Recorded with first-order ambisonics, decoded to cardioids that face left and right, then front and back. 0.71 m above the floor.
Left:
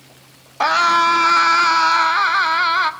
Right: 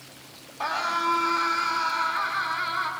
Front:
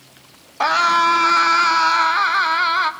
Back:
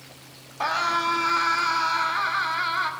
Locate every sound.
0.6 s a scream: 55° left, 1.5 m